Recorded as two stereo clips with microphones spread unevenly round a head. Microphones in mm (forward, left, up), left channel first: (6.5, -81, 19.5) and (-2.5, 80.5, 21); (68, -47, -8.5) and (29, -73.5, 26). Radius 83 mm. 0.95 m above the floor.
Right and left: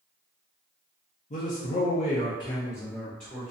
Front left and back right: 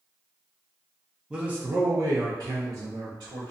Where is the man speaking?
50° right, 0.7 m; by 3.5 s straight behind, 0.9 m.